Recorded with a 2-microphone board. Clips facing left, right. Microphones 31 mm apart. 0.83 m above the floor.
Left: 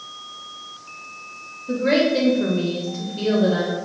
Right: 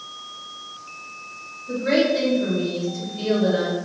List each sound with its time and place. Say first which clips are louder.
1.7 s a woman speaking: left 1 dB; 25° left (ahead or behind), 0.7 m; by 3.8 s 40° left (ahead or behind), 1.0 m